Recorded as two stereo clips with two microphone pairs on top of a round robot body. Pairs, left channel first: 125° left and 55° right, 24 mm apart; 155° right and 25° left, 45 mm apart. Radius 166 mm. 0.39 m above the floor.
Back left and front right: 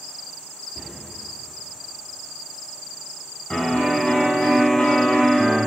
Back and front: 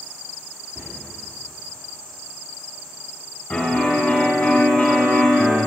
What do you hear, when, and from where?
0.8 s a cupboard door: 5° left, 3.5 m
3.5 s a piano: 155° left, 3.5 m